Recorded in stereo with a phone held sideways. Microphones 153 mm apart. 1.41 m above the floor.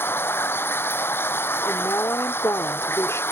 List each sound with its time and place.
0.0 s running water: 15° left (ahead or behind)
1.6 s a woman speaking: 20° left (ahead or behind)